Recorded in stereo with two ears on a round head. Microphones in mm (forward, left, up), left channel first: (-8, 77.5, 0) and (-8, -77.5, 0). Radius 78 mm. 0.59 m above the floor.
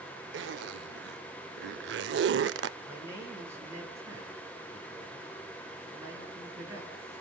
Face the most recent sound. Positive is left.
turn(degrees=-20)  # may be behind; listen again after turning